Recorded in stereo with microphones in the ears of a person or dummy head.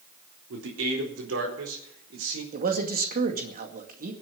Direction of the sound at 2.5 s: 45° right (ahead or behind).